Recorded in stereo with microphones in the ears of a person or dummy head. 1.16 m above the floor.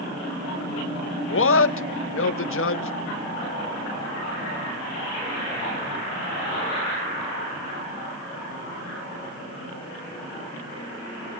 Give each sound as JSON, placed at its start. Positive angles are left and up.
{"t": 1.3, "sound": "a man speaking", "side_deg": 65, "distance_m": 1.4}